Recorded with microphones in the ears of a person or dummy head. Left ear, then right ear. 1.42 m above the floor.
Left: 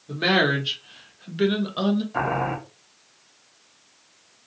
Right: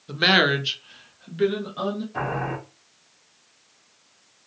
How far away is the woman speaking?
About 0.7 m.